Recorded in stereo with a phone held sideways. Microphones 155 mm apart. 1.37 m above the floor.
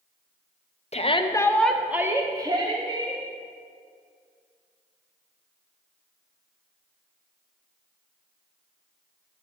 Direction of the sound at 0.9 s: 45° left (ahead or behind).